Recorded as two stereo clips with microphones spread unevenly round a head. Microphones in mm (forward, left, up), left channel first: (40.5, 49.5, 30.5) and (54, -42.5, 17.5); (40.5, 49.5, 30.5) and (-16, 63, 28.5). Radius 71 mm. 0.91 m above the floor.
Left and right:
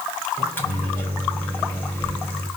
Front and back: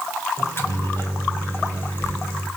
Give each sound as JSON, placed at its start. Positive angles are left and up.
{"t": 0.4, "sound": "a microwave", "azimuth_deg": 30, "distance_m": 4.0}